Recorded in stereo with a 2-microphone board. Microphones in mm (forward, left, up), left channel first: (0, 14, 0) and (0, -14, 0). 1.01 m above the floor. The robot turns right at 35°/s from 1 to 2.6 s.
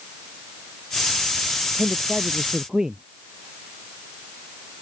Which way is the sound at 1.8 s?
50° right (ahead or behind).